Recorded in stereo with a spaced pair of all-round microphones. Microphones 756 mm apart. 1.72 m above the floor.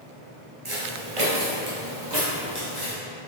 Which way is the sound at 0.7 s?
40° right (ahead or behind).